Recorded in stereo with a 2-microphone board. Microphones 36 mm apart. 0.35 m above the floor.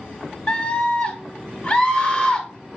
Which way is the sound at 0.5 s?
20° left (ahead or behind).